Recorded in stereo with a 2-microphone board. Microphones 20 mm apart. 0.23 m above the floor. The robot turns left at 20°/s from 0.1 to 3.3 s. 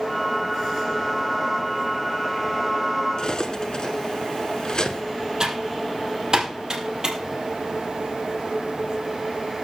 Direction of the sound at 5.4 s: 35° right (ahead or behind).